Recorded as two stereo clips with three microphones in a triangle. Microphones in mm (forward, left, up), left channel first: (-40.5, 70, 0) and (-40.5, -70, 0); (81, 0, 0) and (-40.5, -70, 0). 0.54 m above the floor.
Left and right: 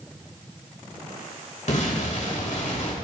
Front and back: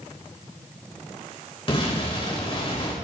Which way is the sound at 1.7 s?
75° left.